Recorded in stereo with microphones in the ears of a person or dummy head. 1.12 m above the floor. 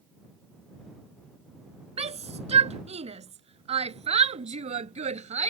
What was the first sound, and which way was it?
A shout, 40° right (ahead or behind).